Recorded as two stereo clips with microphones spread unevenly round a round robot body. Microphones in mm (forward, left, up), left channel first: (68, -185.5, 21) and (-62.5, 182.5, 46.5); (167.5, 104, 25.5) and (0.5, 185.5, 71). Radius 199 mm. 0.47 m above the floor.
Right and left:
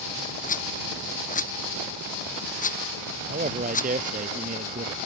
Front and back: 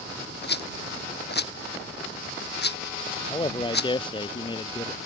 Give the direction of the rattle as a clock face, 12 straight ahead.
12 o'clock.